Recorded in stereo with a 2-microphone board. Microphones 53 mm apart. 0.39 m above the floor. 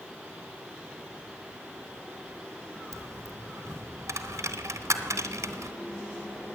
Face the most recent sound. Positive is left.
turn(degrees=-85)